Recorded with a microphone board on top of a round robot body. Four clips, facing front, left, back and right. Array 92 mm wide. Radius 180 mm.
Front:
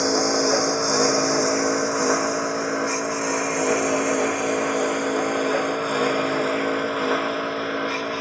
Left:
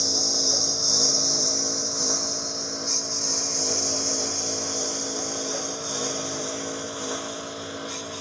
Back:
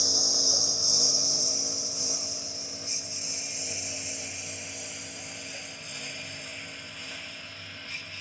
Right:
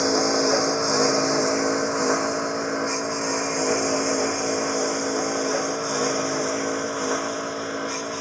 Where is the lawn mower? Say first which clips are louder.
Right 12 dB, front 17 dB; 45° right; by 8.2 s 25° right.